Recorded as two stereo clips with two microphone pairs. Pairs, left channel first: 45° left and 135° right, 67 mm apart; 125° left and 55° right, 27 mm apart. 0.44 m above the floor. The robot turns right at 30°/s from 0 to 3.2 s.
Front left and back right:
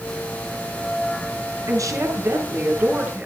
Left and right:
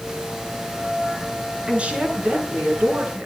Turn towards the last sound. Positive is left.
turn(degrees=-60)